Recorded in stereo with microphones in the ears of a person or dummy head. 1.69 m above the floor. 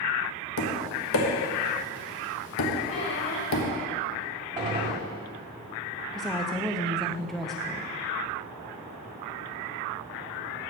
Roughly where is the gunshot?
Right.